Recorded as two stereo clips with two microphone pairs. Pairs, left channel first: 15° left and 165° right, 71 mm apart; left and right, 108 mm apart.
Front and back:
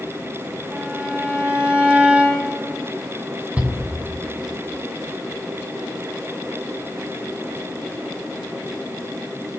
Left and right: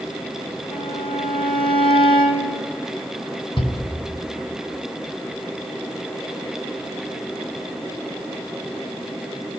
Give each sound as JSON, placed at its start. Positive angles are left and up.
{"t": 0.7, "sound": "a violin", "azimuth_deg": 125, "distance_m": 4.0}
{"t": 3.6, "sound": "a shout", "azimuth_deg": 125, "distance_m": 5.5}